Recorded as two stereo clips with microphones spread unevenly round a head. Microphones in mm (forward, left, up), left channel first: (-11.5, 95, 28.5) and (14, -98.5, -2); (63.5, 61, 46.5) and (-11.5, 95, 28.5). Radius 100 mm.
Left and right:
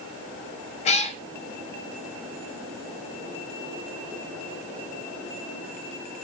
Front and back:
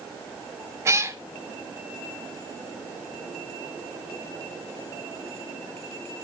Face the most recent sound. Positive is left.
turn(degrees=100)